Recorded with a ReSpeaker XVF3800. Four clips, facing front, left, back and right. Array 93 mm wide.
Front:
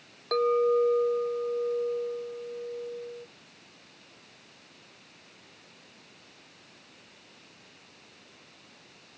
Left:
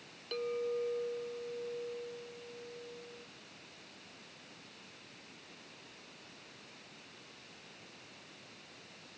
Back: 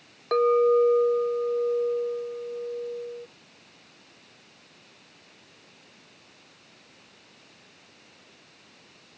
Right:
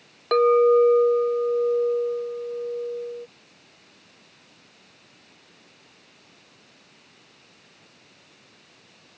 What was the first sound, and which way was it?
A clink, 105° right.